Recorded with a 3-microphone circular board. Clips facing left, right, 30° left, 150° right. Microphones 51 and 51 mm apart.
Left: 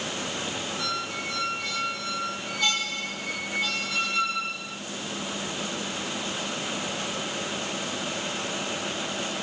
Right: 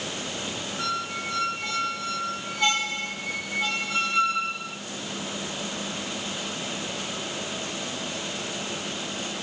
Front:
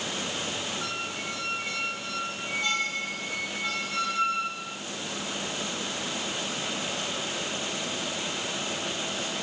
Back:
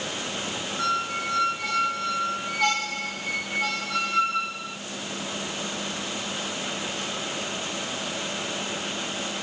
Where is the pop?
No pop in this recording.